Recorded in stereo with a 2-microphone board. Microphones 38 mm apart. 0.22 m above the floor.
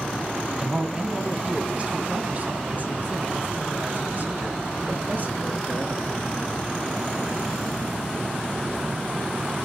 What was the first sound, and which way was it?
A man speaking, 20° right (ahead or behind).